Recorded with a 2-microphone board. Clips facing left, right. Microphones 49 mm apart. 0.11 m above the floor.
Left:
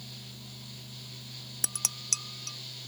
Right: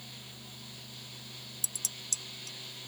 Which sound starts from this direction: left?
Dishes clattering, at 1.6 s.